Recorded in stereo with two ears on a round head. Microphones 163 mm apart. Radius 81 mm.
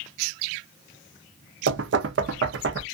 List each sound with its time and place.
1.7 s knocking: 70° right (ahead or behind), 0.6 m